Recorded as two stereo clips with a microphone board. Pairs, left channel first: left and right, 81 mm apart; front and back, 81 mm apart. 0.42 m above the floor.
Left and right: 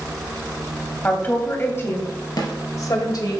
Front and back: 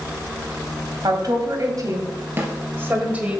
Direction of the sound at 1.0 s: 155° left.